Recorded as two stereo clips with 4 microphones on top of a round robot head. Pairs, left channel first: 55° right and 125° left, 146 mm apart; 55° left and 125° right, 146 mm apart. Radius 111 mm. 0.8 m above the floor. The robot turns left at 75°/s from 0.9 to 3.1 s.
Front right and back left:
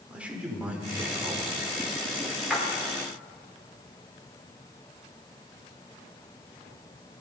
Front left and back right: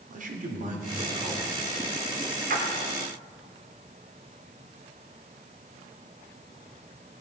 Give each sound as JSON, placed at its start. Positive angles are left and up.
{"t": 0.1, "sound": "a man speaking", "azimuth_deg": -155, "distance_m": 2.5}
{"t": 2.5, "sound": "a splash", "azimuth_deg": -145, "distance_m": 3.0}